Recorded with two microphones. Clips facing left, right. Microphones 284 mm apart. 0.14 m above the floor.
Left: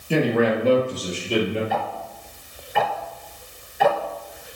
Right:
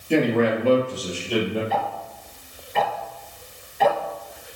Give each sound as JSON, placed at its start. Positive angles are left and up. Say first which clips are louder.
{"t": 0.1, "sound": "a man speaking", "louder": "even", "side_deg": 5, "distance_m": 2.5}
{"t": 1.7, "sound": "ticking", "louder": "even", "side_deg": 10, "distance_m": 1.2}